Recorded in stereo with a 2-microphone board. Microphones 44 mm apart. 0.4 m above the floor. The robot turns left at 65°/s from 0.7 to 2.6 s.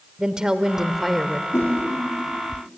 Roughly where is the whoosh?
Left.